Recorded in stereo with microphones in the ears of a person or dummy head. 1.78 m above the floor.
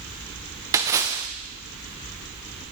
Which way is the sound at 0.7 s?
15° right (ahead or behind).